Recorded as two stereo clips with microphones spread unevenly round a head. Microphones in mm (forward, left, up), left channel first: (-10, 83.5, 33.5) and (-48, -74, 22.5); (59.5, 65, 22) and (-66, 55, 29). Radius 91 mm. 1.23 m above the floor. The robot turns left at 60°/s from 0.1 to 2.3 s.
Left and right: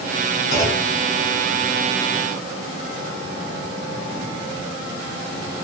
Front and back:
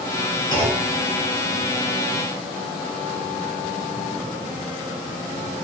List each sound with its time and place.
0.5 s a clunk: 55° left, 1.8 m; by 0.9 s 30° left, 1.8 m